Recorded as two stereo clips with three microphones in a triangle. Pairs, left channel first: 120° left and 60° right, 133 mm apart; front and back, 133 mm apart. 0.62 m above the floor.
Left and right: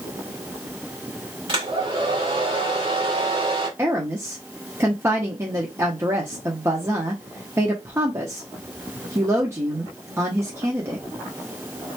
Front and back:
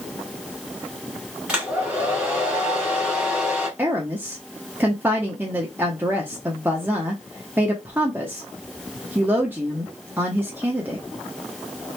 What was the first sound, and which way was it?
A hair dryer, 100° right.